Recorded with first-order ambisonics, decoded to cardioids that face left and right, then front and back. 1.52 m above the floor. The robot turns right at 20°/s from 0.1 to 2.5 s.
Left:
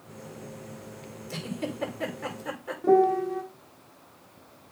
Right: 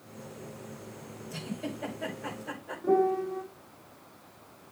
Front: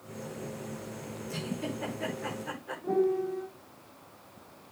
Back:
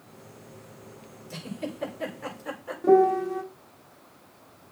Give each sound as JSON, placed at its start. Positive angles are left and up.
{"t": 1.3, "sound": "a giggle", "azimuth_deg": 90, "distance_m": 6.0}
{"t": 2.8, "sound": "a piano", "azimuth_deg": 150, "distance_m": 1.5}